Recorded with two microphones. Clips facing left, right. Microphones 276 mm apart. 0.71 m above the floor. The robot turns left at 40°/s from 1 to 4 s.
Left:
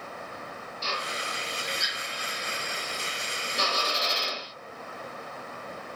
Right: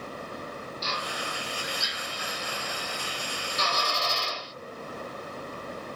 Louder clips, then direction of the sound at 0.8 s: Left 1 dB; 30° left (ahead or behind).